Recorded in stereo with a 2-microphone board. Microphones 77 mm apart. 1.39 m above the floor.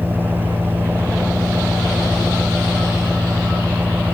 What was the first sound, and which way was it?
An engine running, 25° right (ahead or behind).